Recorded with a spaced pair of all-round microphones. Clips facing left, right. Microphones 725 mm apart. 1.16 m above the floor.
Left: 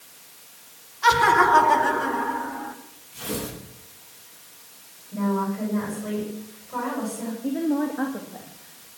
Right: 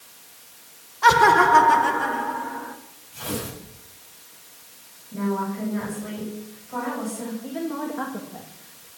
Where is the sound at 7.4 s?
35° right (ahead or behind), 1.9 m.